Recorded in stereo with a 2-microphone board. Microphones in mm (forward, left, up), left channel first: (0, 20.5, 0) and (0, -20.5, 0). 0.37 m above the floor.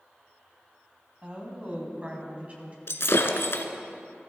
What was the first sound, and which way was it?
A woman speaking, 35° right (ahead or behind).